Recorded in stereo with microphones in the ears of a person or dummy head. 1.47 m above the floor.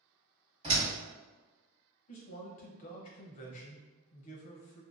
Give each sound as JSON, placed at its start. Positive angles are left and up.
{"t": 0.6, "sound": "a door slam", "side_deg": -30, "distance_m": 1.6}
{"t": 2.1, "sound": "a man speaking", "side_deg": 45, "distance_m": 0.7}